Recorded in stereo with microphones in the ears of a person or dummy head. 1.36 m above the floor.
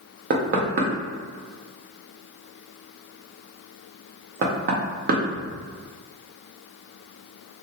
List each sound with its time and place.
0.3 s knocking: 55° right (ahead or behind), 0.7 m